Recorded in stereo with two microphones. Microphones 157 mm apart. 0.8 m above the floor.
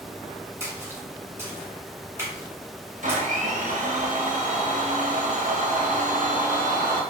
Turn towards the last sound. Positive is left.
turn(degrees=-55)  # may be behind; listen again after turning